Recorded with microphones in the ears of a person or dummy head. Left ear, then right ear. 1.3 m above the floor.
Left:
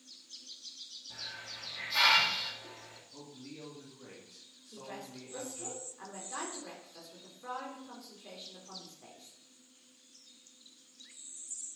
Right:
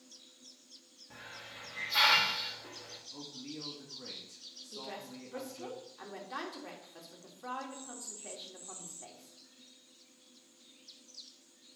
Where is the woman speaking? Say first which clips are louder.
Even; 20° right (ahead or behind), 2 m.